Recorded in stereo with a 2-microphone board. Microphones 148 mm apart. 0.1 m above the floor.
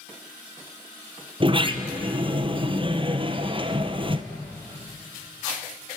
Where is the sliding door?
35° right (ahead or behind), 1.7 m.